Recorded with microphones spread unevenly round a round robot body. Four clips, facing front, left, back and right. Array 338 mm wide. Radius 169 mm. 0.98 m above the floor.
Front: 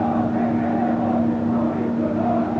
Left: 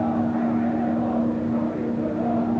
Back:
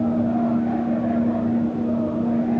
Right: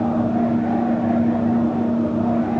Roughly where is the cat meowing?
I don't hear a cat meowing.